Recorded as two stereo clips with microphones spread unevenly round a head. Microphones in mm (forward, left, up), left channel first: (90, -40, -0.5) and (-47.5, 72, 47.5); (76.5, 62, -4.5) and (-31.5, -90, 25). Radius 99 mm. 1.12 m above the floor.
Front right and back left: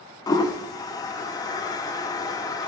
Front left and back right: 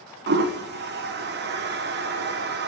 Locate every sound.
0.3 s a toilet flushing: 95° right, 0.7 m